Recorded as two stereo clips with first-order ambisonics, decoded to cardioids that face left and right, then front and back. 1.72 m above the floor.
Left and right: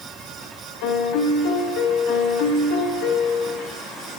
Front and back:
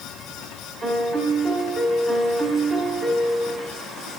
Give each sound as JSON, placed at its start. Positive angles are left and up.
{"t": 0.8, "sound": "a piano", "azimuth_deg": 110, "distance_m": 4.5}